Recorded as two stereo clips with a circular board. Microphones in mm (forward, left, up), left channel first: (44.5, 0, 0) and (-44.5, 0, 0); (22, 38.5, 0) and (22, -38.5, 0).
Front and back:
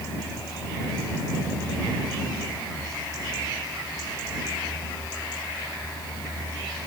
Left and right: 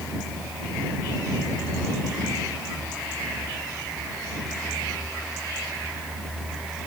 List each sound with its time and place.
Only background noise.